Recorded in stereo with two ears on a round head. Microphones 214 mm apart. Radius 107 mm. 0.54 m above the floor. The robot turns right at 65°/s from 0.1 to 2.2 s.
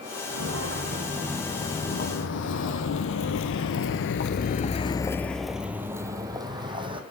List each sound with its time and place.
0.3 s footsteps: 75° right (ahead or behind), 2.5 m; by 7.0 s 20° right (ahead or behind), 1.6 m